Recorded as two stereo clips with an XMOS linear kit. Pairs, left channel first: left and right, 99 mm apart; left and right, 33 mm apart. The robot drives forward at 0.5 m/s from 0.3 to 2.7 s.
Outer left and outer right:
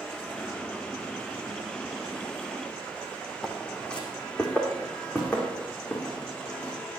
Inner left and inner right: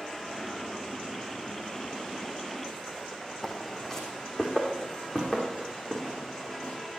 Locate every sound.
3.4 s footsteps: 5° left (ahead or behind), 2 m; by 6.7 s 20° left (ahead or behind), 6.5 m